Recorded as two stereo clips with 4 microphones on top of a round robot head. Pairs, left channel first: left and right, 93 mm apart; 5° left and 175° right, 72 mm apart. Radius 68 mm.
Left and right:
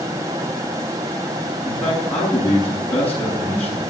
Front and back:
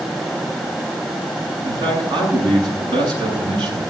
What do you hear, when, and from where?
1.6 s a man speaking: 165° left, 8 m